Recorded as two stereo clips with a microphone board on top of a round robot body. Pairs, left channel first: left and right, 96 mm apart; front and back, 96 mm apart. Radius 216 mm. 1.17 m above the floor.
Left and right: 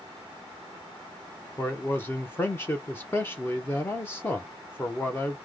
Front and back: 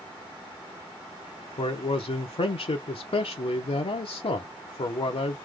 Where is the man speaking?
20° left, 0.6 m.